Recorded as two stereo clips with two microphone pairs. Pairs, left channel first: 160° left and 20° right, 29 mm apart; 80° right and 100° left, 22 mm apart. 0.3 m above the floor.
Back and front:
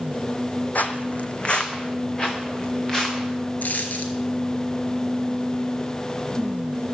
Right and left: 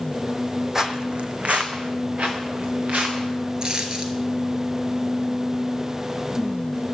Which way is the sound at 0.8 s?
165° left.